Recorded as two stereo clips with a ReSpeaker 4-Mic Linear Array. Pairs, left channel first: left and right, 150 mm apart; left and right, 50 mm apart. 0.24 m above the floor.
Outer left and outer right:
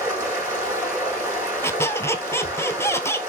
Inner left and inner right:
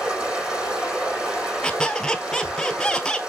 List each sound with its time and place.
0.0 s running water: 20° right (ahead or behind), 4 m
1.6 s a squeak: 15° left (ahead or behind), 0.7 m